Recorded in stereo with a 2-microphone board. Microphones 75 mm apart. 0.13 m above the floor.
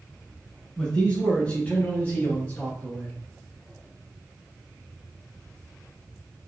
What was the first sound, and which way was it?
A man speaking, 15° left (ahead or behind).